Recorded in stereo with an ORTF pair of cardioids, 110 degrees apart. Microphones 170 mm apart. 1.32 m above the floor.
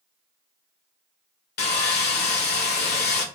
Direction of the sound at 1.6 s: 65° left.